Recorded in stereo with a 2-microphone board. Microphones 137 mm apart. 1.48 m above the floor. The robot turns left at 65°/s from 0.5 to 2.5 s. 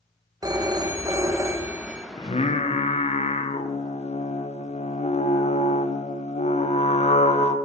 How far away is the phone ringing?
About 0.7 m.